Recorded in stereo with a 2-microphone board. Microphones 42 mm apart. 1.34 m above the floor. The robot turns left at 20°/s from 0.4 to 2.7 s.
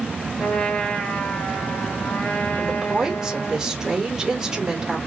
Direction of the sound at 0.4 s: 155° left.